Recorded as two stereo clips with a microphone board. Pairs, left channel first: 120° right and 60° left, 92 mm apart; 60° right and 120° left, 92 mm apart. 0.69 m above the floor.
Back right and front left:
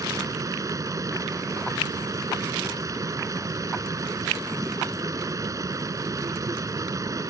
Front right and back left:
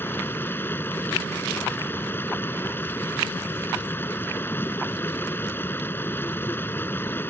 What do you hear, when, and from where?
0.0 s running water: 5° left